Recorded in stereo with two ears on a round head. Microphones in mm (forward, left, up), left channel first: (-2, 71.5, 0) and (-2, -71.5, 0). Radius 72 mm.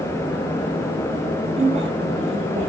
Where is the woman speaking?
40° right (ahead or behind), 6 m.